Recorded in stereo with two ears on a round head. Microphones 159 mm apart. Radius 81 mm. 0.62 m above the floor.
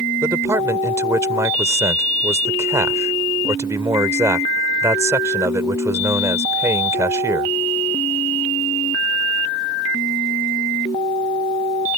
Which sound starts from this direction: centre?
A man speaking, at 0.2 s.